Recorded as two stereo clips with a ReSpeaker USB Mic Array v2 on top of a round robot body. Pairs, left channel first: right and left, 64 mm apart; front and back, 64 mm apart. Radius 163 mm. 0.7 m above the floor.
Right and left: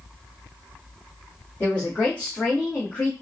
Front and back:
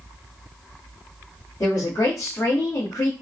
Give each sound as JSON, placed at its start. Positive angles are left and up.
{"t": 1.6, "sound": "a woman speaking", "azimuth_deg": -25, "distance_m": 2.0}